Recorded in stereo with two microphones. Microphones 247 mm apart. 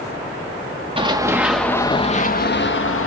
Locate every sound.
1.0 s running footsteps: 20° right (ahead or behind), 0.8 m; by 3.1 s 60° left (ahead or behind), 0.9 m